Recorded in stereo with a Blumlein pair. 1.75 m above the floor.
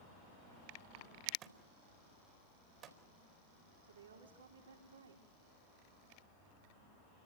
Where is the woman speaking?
70° right, 5 m.